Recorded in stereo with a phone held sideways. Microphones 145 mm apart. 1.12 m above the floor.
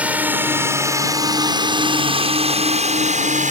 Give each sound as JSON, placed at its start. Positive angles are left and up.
{"t": 0.0, "sound": "a drone", "side_deg": -10}